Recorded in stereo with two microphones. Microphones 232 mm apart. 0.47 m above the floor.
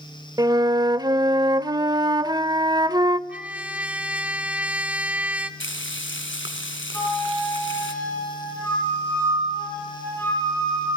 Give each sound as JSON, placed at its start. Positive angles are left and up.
{"t": 0.4, "sound": "a flute", "side_deg": -15, "distance_m": 0.6}
{"t": 3.3, "sound": "a trumpet", "side_deg": -5, "distance_m": 1.1}
{"t": 5.6, "sound": "frying", "side_deg": 55, "distance_m": 2.5}
{"t": 6.9, "sound": "a flute", "side_deg": 10, "distance_m": 7.5}